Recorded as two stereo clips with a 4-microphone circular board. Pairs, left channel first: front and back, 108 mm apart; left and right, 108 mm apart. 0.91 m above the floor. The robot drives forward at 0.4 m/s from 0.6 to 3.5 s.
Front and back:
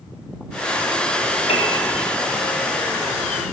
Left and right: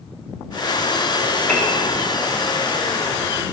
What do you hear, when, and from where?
1.5 s a piano: 15° left, 0.7 m